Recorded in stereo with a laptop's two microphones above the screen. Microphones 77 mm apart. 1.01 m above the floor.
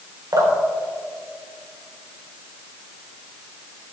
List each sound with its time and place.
0.3 s dripping: 55° right (ahead or behind), 3 m